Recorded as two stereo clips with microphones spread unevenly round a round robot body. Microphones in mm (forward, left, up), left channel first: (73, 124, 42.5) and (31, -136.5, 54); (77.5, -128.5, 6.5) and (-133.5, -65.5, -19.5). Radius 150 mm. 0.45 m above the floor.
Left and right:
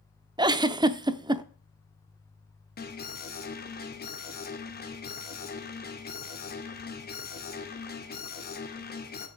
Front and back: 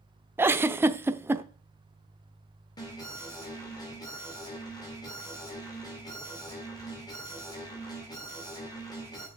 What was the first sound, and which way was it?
A giggle, 155° right.